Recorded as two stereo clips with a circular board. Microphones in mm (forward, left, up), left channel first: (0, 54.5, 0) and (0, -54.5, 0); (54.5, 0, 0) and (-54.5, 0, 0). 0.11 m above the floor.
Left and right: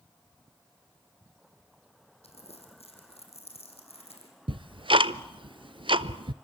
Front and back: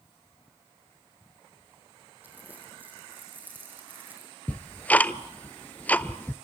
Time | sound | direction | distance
2.2 | crumpling | 105° left | 4.5 m
4.5 | ticking | 70° right | 0.5 m